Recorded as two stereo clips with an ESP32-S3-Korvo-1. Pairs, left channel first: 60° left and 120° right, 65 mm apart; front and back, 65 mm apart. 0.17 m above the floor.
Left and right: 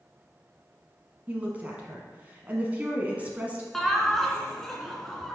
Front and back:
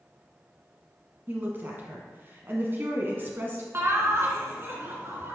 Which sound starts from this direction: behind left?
Laughter, at 3.7 s.